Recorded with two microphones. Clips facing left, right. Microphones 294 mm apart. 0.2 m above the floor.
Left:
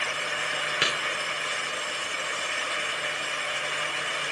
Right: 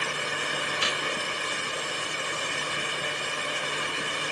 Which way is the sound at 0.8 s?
90° left.